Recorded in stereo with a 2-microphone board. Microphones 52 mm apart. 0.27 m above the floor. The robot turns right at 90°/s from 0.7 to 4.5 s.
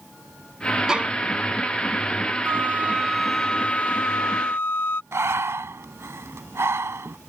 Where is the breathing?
60° right (ahead or behind).